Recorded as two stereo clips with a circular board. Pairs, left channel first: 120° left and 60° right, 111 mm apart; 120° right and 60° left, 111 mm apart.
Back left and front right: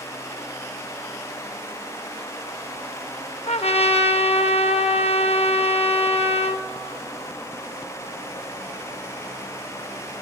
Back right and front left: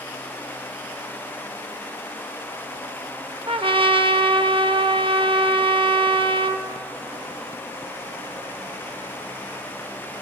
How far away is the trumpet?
About 0.5 m.